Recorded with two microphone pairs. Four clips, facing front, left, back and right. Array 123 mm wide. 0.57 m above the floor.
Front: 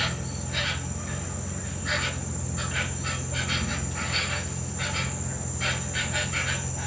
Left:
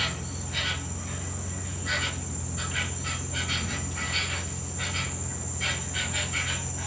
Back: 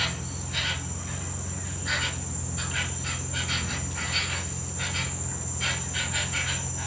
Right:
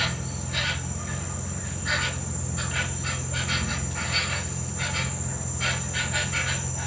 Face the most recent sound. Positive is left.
turn(degrees=-60)